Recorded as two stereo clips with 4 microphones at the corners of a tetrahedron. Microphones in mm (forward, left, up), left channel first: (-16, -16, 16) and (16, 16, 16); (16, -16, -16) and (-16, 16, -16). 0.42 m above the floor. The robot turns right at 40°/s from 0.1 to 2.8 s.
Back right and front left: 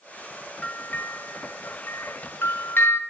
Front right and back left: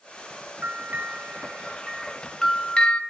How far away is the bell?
About 1.0 m.